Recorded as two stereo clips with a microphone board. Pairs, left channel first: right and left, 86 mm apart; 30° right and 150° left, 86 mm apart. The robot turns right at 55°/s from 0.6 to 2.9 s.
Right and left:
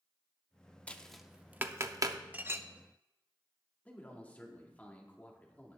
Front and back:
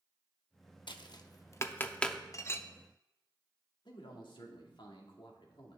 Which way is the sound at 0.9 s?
15° right.